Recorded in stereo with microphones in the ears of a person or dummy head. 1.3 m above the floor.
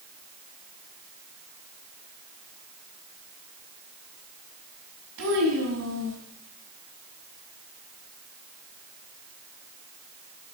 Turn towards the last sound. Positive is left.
turn(degrees=-85)